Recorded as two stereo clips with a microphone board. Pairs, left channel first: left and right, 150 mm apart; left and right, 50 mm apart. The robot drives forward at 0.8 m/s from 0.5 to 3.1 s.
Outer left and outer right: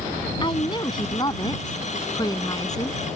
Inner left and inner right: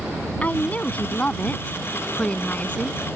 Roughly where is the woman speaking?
Left.